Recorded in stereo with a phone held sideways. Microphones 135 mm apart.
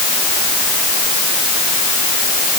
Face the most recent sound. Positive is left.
No sound to turn to.